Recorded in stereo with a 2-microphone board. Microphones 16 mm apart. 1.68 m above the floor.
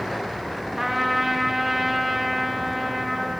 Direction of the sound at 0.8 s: 5° right (ahead or behind).